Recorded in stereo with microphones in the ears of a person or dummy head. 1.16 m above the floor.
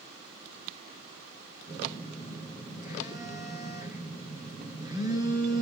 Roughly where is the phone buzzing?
Right.